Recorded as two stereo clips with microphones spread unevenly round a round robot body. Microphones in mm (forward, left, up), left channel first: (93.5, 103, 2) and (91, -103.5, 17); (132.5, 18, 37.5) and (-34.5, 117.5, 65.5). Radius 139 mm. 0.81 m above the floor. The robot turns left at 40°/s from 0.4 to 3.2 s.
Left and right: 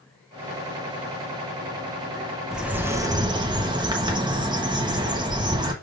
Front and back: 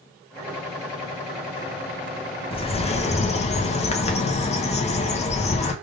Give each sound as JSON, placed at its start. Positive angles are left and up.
{"t": 2.5, "sound": "a bird", "azimuth_deg": 0, "distance_m": 1.0}